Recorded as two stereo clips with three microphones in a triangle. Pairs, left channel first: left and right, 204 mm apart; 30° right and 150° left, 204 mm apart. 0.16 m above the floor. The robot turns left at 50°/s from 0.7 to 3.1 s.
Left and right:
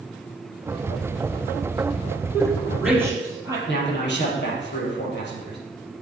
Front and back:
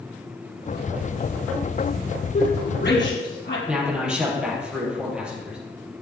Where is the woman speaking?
20° left, 4 m; by 3.6 s 15° right, 4 m.